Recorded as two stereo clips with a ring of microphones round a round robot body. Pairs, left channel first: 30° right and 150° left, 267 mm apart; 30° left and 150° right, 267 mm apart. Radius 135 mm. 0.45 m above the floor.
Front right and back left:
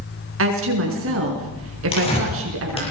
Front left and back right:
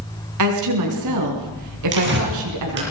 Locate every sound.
0.4 s a woman speaking: 170° right, 5.5 m
1.9 s tearing paper: 100° right, 7 m